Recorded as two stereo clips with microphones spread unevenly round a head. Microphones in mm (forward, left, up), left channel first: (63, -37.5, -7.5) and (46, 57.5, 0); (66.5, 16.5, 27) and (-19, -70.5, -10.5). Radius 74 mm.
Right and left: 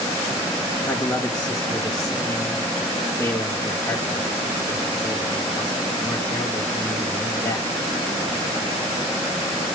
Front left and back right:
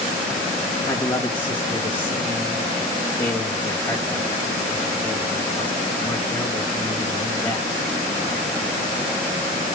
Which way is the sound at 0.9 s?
10° right.